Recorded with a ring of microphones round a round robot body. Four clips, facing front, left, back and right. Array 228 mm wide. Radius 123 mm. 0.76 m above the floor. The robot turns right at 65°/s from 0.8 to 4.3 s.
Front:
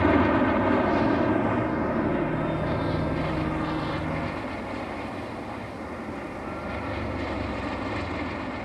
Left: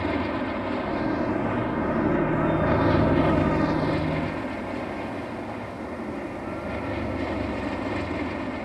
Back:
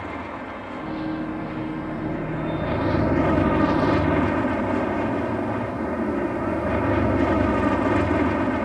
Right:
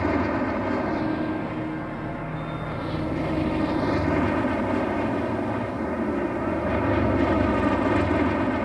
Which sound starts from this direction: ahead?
An aircraft, at 0.0 s.